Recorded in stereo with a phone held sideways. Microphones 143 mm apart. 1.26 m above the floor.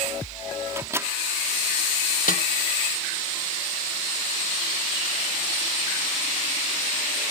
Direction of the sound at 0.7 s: 20° right (ahead or behind).